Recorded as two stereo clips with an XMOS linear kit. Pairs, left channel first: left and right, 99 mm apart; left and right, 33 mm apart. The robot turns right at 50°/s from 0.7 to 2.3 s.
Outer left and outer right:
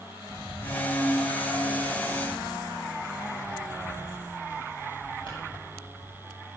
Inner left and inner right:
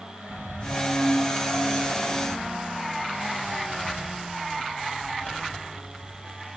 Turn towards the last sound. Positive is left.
turn(degrees=60)  # may be behind; listen again after turning